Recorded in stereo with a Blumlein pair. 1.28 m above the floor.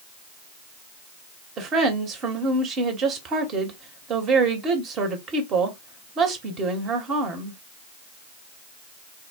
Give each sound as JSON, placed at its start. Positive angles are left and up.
{"t": 1.6, "sound": "a woman speaking", "azimuth_deg": -30, "distance_m": 1.0}